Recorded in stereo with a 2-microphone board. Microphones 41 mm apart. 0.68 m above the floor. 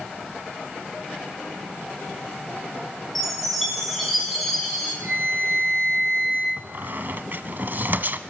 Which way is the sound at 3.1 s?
5° left (ahead or behind).